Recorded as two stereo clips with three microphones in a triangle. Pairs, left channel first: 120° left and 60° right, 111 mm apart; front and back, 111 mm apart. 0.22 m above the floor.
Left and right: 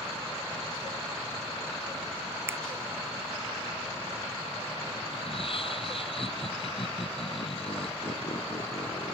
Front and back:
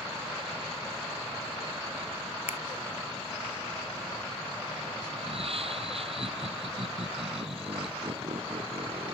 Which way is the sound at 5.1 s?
150° left.